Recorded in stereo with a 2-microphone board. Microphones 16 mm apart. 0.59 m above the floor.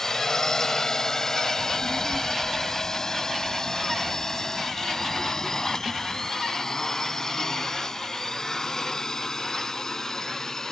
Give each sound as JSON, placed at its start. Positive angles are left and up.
{"t": 0.0, "sound": "a drone", "side_deg": 35}
{"t": 1.6, "sound": "a child speaking", "side_deg": -60}